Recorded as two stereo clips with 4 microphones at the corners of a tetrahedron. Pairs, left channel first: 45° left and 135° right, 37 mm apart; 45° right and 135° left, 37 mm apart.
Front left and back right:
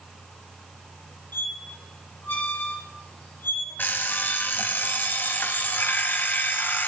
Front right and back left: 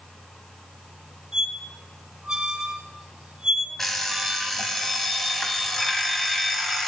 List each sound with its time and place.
1.3 s a squeak: 55° left, 2 m
3.8 s an alarm clock: 35° left, 1.3 m